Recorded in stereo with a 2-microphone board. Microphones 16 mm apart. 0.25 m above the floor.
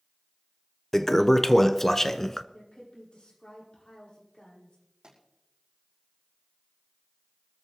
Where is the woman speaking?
80° left, 9 m.